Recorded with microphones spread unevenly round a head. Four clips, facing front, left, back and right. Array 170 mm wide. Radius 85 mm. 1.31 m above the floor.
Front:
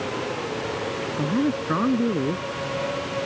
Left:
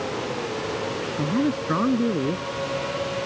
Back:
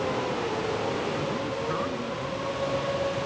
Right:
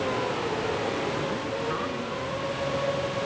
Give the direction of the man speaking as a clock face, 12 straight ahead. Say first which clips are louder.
Left 6 dB, front 6 dB; 11 o'clock.